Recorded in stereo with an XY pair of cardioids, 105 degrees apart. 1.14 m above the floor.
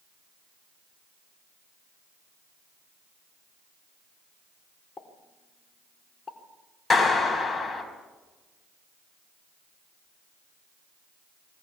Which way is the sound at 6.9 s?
25° left.